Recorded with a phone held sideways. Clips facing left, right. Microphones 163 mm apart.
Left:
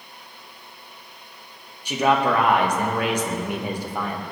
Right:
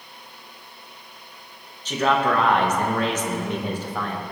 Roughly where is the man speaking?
Centre.